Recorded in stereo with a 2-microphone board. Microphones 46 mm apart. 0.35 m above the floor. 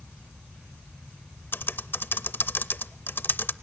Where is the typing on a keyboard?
50° left (ahead or behind), 0.5 m.